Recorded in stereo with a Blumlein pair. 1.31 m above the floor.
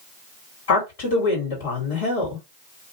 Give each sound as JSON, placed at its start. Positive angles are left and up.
{"t": 0.7, "sound": "a woman speaking", "azimuth_deg": 55, "distance_m": 1.7}